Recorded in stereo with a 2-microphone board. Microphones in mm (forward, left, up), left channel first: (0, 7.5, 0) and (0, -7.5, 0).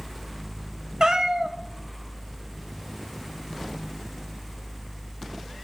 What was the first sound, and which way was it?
A cat meowing, 60° right (ahead or behind).